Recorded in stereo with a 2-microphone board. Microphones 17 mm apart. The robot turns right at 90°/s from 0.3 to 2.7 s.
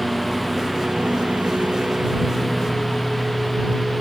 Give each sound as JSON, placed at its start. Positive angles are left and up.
{"t": 0.0, "sound": "a lawn mower", "side_deg": 10}